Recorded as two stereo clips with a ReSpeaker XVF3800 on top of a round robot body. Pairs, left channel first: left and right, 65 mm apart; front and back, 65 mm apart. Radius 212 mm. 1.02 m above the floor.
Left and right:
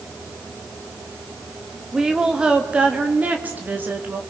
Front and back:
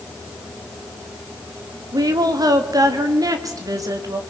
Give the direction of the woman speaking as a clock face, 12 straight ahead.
6 o'clock.